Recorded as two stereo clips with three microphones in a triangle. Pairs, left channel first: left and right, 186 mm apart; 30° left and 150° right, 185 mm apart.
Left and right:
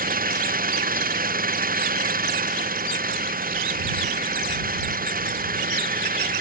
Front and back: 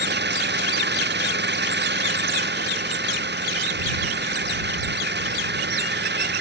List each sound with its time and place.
0.0 s an engine running: 130° right